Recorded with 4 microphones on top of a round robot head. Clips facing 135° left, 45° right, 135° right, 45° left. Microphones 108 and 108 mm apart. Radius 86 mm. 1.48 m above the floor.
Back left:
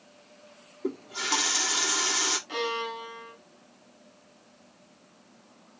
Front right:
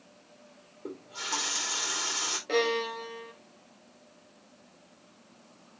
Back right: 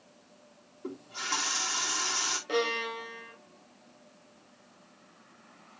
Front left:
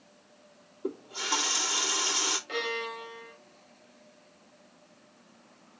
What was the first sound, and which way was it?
A running tap, 125° left.